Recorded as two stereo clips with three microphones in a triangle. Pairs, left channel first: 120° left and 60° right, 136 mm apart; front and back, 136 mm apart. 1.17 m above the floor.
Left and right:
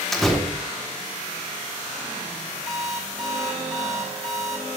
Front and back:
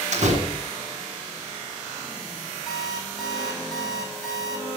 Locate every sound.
0.1 s a door slam: 155° right, 1.6 m
2.7 s an alarm clock: 90° right, 3.5 m